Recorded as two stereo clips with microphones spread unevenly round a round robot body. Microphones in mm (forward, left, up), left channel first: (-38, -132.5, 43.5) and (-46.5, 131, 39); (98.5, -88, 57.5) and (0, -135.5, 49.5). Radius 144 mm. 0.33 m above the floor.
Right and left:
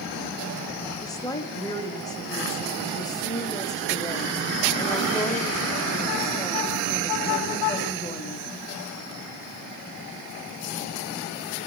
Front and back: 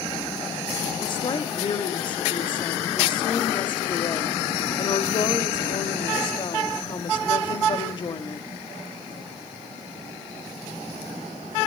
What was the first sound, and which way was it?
A woman speaking, 15° right.